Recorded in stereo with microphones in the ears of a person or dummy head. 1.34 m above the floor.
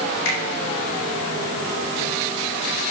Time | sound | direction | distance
0.2 | a finger snap | 70° left (ahead or behind) | 2.5 m